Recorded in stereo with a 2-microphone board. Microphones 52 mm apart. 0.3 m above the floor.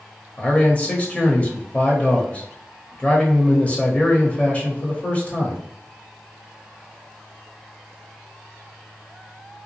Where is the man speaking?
25° left (ahead or behind), 0.9 m.